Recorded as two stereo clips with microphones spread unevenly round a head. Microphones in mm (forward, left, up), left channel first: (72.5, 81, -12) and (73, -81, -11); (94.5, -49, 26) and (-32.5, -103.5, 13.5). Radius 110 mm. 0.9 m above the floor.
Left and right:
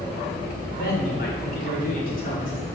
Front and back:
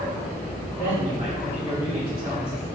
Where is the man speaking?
80° left, 3 m; by 2.7 s 55° left, 3.5 m.